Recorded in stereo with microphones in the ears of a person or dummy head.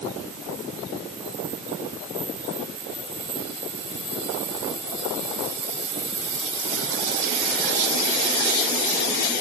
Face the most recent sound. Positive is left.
No sound to turn to.